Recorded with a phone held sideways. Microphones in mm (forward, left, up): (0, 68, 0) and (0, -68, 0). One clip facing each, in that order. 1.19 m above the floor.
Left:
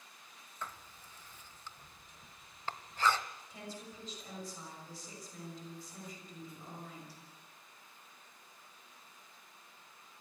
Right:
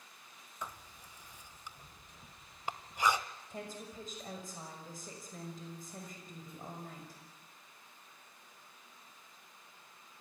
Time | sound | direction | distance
0.6 | writing | 15° right (ahead or behind) | 1.0 m
3.5 | a woman speaking | 50° right (ahead or behind) | 5.5 m